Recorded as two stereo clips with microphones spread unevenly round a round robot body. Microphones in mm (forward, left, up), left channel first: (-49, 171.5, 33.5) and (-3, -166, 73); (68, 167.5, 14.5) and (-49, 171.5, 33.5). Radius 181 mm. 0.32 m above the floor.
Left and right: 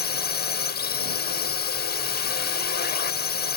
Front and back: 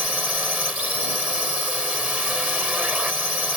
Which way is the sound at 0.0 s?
95° left.